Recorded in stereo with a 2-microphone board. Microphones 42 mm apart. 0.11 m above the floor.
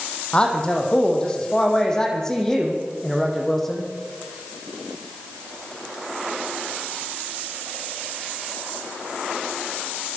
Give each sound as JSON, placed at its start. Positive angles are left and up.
{"t": 0.3, "sound": "a man speaking", "side_deg": 25, "distance_m": 5.5}